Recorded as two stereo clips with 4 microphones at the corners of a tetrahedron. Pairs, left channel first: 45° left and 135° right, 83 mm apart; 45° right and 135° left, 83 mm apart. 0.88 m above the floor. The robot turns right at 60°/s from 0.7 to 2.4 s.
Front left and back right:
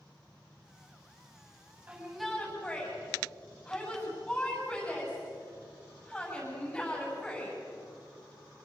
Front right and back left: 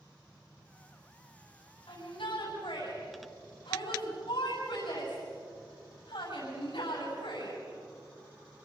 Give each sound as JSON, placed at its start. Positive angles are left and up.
{"t": 1.9, "sound": "a shout", "azimuth_deg": -65, "distance_m": 8.0}